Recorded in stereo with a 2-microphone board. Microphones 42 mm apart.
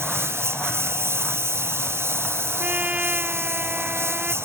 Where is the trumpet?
35° right (ahead or behind).